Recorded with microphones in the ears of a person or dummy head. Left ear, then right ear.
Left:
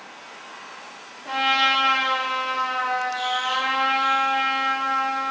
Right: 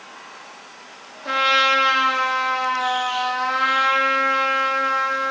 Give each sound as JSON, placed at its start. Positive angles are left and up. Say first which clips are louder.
{"t": 1.2, "sound": "a trumpet", "louder": "right 3 dB", "side_deg": -70, "distance_m": 1.4}